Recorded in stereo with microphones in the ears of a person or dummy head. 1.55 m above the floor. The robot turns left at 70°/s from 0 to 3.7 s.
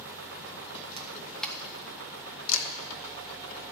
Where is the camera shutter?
30° right (ahead or behind), 0.7 m; by 2.7 s 85° left, 0.7 m.